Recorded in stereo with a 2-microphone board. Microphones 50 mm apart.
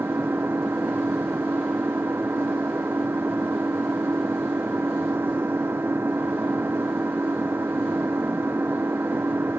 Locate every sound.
0.0 s an engine running: 55° right (ahead or behind)